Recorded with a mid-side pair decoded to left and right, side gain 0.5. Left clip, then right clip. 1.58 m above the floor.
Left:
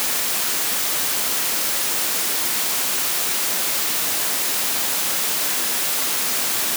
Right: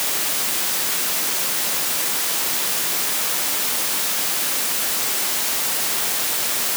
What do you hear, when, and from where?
Only background noise.